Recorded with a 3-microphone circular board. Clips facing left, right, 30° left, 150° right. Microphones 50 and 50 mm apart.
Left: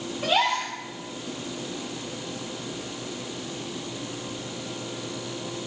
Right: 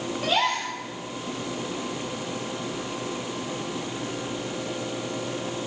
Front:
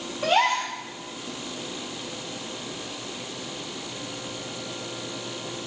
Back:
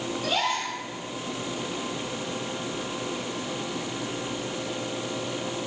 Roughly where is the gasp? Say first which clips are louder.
Left 1 dB, front 7 dB; ahead.